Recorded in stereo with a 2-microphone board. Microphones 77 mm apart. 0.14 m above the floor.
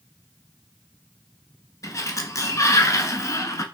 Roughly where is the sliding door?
Left.